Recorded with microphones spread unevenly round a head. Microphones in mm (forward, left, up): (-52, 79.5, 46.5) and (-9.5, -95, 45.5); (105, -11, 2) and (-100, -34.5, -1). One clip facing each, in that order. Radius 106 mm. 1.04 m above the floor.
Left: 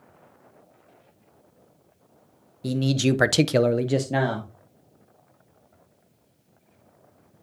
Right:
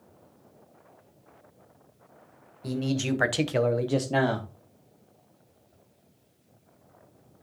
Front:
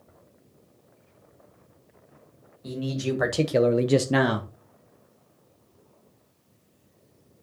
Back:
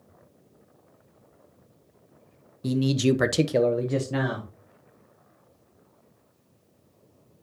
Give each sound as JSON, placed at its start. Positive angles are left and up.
{"t": 2.6, "sound": "a man speaking", "azimuth_deg": 155, "distance_m": 1.1}